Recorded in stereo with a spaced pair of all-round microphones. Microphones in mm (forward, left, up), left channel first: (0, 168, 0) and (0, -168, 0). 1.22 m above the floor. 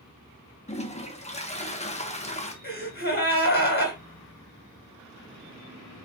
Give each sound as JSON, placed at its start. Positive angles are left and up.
{"t": 0.7, "sound": "a toilet flushing", "side_deg": 20, "distance_m": 1.3}
{"t": 2.6, "sound": "a gasp", "side_deg": 30, "distance_m": 2.5}